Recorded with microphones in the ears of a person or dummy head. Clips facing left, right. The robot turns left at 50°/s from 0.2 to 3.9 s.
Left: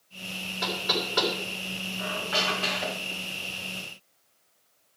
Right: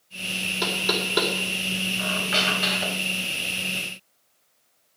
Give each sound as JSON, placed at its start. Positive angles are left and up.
{"t": 0.6, "sound": "knocking", "side_deg": -75, "distance_m": 3.0}
{"t": 2.0, "sound": "a squeak", "azimuth_deg": -120, "distance_m": 1.7}